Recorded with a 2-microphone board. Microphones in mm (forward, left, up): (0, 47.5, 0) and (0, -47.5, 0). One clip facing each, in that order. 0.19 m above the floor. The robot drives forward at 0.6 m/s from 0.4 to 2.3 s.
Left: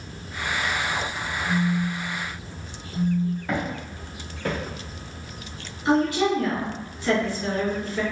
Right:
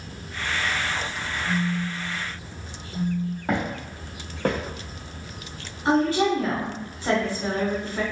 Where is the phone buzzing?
35° right (ahead or behind), 1.5 m; by 3.4 s 30° right (ahead or behind), 1.7 m.